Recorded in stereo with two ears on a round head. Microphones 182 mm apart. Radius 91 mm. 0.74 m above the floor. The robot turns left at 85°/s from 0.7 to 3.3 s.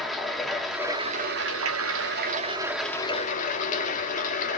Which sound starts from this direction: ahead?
Running water, at 0.0 s.